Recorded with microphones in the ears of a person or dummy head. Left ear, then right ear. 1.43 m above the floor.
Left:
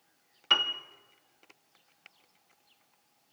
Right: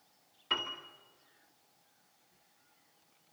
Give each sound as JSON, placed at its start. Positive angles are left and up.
{"t": 0.5, "sound": "a piano", "side_deg": 45, "distance_m": 2.0}